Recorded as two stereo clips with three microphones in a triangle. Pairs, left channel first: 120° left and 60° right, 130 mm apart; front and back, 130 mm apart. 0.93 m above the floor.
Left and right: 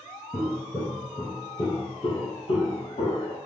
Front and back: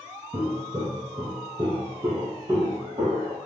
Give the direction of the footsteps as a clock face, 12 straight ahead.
5 o'clock.